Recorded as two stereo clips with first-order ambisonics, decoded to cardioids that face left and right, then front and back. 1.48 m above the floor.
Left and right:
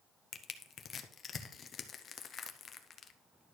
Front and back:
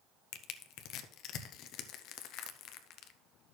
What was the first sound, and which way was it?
Crushing, 30° left.